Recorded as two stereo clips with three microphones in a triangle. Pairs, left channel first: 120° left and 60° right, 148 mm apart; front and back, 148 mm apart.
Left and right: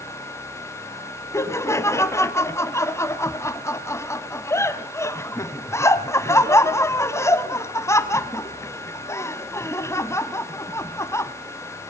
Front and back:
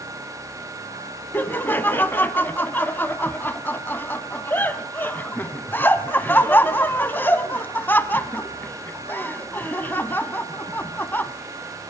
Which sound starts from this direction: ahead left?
Laughter, at 1.3 s.